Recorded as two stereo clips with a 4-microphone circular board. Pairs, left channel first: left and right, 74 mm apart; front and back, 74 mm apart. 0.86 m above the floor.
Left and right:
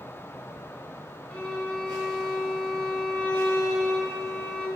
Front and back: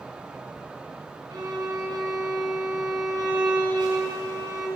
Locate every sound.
1.3 s a violin: 165° left, 4 m